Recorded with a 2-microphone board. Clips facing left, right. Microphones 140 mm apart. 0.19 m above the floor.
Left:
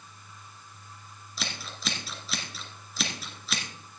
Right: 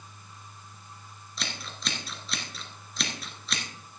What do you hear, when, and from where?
1.4 s scissors: centre (ahead or behind), 2 m